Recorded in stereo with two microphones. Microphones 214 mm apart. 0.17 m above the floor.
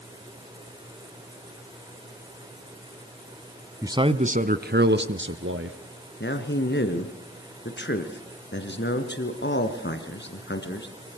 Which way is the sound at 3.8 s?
15° right (ahead or behind).